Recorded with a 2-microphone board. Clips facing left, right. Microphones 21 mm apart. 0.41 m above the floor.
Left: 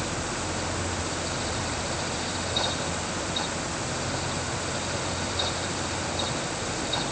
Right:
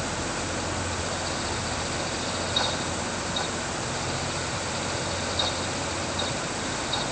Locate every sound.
Only background noise.